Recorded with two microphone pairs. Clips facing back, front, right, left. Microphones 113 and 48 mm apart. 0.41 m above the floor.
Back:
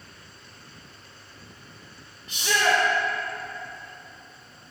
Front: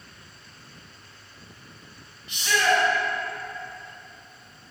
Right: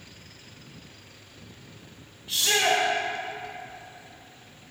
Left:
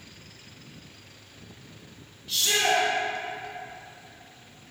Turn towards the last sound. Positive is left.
turn(degrees=-150)